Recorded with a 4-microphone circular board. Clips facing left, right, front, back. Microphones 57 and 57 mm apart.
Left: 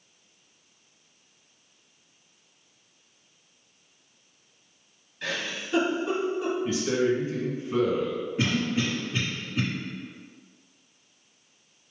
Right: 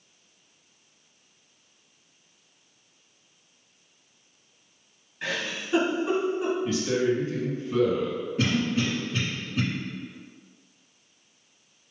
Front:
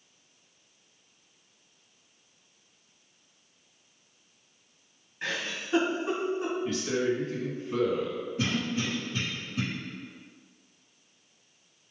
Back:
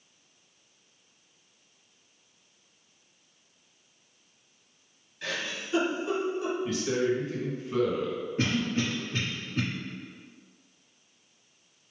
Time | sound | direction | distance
5.2 | a giggle | 30° right | 1.4 m
6.7 | a man speaking | 95° left | 1.1 m
8.4 | a cough | 170° left | 1.5 m